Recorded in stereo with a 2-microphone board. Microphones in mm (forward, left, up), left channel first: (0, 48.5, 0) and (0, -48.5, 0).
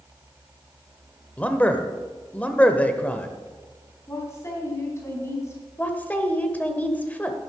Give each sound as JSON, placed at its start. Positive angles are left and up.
{"t": 1.4, "sound": "a man speaking", "side_deg": 15, "distance_m": 0.9}
{"t": 4.1, "sound": "a woman speaking", "side_deg": 25, "distance_m": 3.0}
{"t": 5.8, "sound": "a woman speaking", "side_deg": 15, "distance_m": 1.2}